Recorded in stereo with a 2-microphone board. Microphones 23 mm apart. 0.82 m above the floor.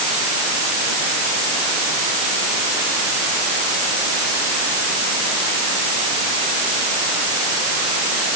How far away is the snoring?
I don't hear snoring.